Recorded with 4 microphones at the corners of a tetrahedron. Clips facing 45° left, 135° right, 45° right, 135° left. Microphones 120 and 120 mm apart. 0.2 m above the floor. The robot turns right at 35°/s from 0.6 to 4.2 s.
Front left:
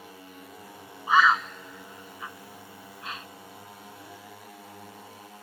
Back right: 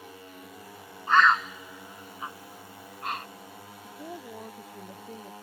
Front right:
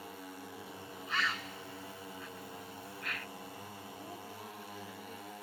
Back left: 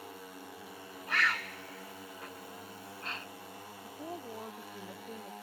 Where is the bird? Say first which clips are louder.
Even, back left 3 dB; 125° left; by 3.3 s 160° right.